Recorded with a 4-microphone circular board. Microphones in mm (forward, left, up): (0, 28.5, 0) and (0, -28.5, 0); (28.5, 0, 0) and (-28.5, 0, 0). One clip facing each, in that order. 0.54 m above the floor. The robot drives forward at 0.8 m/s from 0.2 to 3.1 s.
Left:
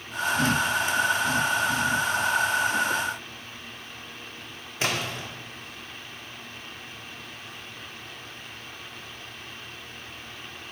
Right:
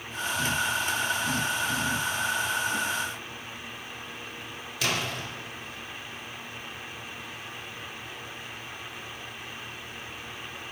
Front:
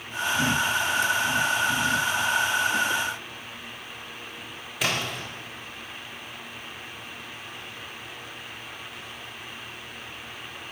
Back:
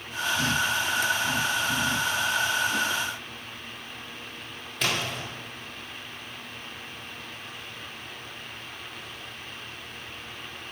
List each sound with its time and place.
4.8 s a splash: 80° left, 1.4 m